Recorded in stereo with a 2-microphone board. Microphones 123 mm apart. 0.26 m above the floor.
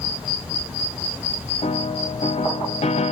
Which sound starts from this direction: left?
A piano, at 1.6 s.